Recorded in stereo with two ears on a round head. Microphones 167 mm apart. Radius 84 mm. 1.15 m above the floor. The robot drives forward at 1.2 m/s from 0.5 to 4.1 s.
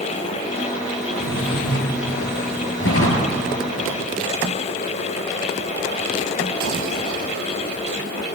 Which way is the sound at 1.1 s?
55° left (ahead or behind).